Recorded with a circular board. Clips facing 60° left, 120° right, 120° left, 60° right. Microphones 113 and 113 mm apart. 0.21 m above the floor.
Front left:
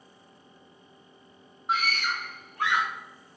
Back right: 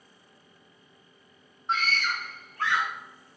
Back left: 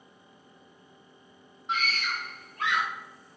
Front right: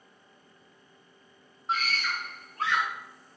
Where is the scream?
20° right, 2.0 m; by 2.9 s 10° right, 2.5 m.